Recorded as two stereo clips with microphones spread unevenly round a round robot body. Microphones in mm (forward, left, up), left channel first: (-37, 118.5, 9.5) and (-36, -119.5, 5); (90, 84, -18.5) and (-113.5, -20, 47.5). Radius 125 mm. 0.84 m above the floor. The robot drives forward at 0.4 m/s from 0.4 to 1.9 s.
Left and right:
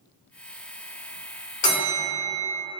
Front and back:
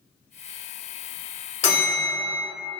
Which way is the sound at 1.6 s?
80° left.